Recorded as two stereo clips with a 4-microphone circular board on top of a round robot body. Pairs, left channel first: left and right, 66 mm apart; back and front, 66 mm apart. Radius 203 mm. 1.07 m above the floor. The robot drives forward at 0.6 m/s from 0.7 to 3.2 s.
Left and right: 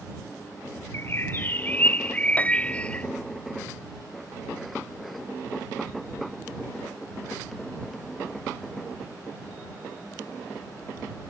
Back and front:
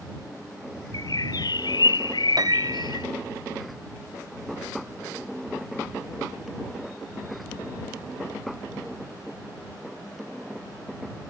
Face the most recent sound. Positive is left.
turn(degrees=35)